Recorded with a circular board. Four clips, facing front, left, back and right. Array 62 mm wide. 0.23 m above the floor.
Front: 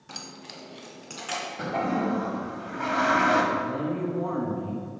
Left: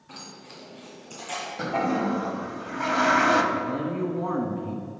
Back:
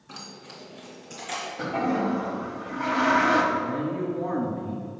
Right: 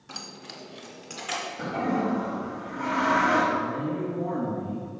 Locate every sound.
0.1 s keys jangling: 35° right, 1.0 m; by 1.5 s 45° right, 2.5 m
1.6 s a toilet flushing: 80° left, 0.8 m
3.5 s a man speaking: 80° left, 2 m